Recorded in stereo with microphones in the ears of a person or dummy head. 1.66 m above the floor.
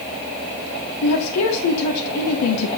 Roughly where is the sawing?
I don't hear sawing.